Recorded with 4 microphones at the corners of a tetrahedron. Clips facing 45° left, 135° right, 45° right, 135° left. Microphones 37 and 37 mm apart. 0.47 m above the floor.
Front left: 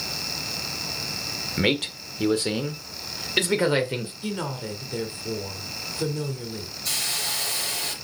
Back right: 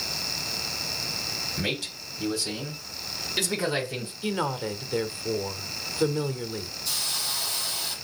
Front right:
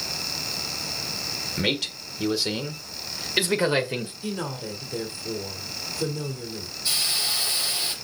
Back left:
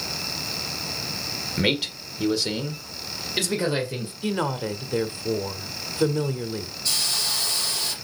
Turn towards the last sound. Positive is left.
turn(degrees=25)